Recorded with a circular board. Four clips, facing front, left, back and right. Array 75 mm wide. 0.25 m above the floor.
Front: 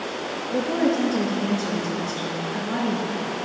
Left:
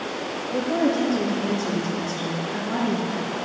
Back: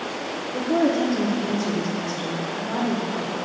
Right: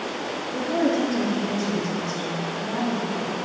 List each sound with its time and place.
0.5 s a woman speaking: straight ahead, 4 m; by 3.3 s 40° left, 3.5 m